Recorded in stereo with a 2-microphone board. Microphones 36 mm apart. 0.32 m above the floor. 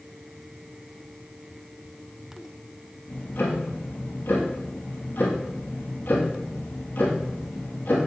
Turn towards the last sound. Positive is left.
turn(degrees=75)  # may be behind; listen again after turning